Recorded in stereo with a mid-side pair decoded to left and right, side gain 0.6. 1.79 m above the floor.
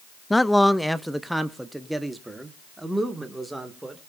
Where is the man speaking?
10° left, 0.7 m; by 4.0 s 10° right, 3.5 m.